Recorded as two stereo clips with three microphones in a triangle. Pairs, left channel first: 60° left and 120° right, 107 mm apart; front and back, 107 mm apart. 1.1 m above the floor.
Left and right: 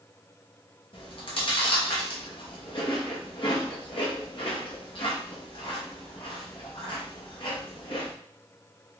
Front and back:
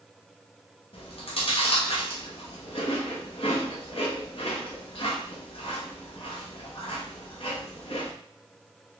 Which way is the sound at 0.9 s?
25° left.